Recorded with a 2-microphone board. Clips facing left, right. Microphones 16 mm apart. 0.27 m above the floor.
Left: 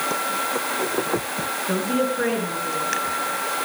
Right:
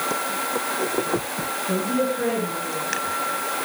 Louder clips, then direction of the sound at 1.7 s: Even; 55° left (ahead or behind).